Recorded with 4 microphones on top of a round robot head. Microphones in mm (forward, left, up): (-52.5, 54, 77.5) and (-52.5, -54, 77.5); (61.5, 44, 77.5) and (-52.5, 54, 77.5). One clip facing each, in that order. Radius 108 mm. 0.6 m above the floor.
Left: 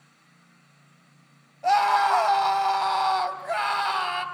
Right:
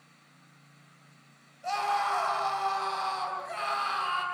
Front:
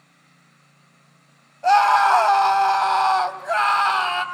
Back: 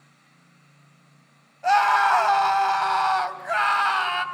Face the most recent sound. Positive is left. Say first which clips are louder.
# left 9 dB, front 4 dB
turn(degrees=60)